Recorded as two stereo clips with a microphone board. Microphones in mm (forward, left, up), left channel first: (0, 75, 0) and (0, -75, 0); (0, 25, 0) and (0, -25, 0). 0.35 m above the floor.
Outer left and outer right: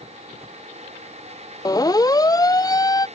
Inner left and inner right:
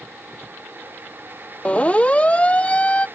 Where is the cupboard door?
No cupboard door in this recording.